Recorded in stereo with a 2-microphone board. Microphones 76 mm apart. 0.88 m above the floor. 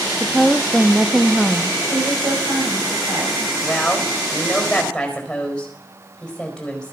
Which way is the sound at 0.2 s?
5° right (ahead or behind).